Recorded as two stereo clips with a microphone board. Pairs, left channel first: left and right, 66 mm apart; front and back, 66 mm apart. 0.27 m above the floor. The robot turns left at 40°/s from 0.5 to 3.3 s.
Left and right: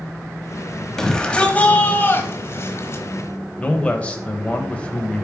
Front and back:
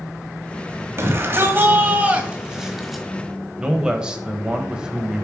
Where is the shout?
170° left, 1.2 m; by 3.0 s 85° left, 1.2 m.